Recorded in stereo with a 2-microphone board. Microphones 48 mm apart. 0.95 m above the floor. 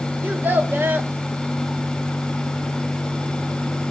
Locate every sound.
0.2 s a child speaking: 45° right (ahead or behind), 1.1 m